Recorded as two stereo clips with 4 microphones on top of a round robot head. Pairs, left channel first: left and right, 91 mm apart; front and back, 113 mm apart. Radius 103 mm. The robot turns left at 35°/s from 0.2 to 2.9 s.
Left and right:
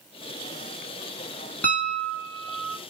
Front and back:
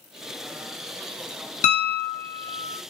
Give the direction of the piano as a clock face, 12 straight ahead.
12 o'clock.